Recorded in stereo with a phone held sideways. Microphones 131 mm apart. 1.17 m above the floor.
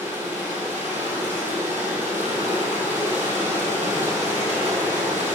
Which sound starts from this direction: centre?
Running water, at 0.0 s.